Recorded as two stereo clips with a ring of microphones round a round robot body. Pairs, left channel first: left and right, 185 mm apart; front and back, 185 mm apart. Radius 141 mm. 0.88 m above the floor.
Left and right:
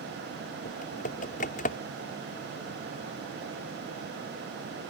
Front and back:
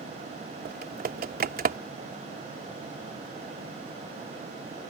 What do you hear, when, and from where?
0.7 s typing on a keyboard: 145° left